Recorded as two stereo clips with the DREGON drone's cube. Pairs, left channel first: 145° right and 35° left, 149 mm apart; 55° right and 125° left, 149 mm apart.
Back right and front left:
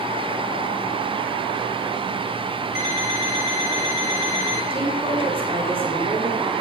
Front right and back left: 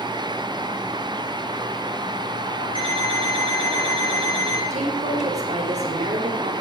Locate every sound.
2.8 s an alarm clock: straight behind, 9.5 m
4.7 s a woman speaking: 85° left, 4 m